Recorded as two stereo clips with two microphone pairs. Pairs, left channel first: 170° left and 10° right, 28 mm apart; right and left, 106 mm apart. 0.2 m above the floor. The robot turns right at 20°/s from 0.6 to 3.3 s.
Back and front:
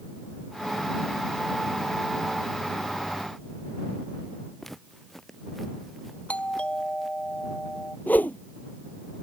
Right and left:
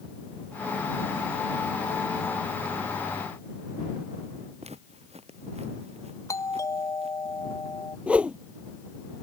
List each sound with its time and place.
4.6 s footsteps: 90° left; by 7.2 s 80° left
6.3 s a doorbell: 150° right
8.1 s a whoosh: 170° left